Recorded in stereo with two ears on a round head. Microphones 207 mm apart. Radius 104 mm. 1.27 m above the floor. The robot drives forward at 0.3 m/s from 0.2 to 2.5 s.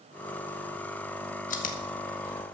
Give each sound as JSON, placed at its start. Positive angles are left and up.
{"t": 1.5, "sound": "chewing", "side_deg": 35, "distance_m": 1.8}